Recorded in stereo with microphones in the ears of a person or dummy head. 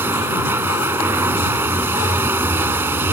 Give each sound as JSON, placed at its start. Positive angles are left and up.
{"t": 0.0, "sound": "running water", "side_deg": -10}